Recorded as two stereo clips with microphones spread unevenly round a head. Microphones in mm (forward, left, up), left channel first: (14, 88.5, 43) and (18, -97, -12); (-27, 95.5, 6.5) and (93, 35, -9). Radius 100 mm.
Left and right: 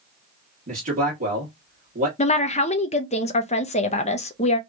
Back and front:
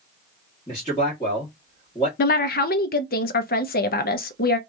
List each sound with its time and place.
0.7 s a man speaking: 135° right, 1.3 m
2.2 s a woman speaking: 155° left, 0.6 m